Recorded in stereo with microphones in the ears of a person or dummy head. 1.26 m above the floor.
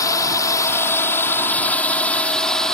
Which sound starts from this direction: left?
A drone, at 0.0 s.